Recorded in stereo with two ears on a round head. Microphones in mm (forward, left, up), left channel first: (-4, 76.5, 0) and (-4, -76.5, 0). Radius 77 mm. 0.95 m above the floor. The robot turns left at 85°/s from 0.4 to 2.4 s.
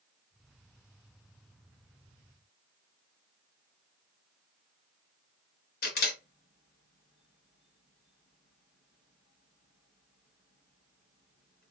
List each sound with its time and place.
5.8 s a camera shutter: 55° left (ahead or behind), 1.9 m